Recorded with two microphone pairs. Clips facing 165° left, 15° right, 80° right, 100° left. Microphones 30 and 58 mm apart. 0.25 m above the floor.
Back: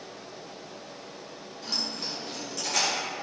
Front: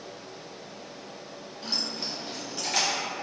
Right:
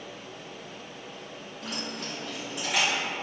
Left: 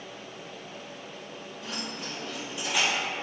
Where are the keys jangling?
75° right, 1.7 m; by 2.9 s 80° right, 2.5 m.